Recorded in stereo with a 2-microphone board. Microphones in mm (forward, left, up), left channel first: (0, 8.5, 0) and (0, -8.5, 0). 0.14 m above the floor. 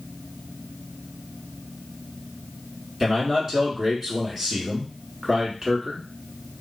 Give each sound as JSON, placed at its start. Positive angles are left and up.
{"t": 3.0, "sound": "a man speaking", "side_deg": -30, "distance_m": 1.2}